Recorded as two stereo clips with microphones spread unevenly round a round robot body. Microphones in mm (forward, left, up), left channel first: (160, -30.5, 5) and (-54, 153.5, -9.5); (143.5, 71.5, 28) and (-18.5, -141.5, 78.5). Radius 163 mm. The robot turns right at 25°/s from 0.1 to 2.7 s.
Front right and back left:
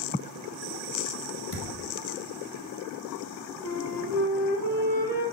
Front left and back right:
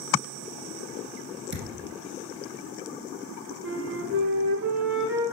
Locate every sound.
1.5 s a thud: 80° right, 2.5 m; by 1.9 s 70° right, 2.5 m
3.6 s a flute: 80° right, 3.5 m